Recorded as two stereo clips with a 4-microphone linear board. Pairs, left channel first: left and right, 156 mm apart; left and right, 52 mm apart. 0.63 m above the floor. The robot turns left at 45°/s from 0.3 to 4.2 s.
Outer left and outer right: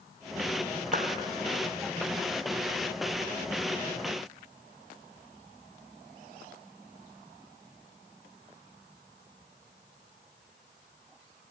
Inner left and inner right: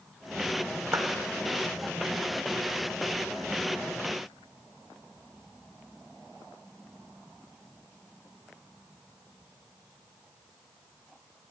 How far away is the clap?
About 1.8 m.